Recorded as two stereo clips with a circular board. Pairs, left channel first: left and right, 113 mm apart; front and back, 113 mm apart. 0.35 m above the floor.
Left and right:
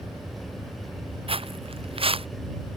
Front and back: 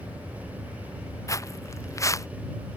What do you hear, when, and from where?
1.3 s footsteps: 60° right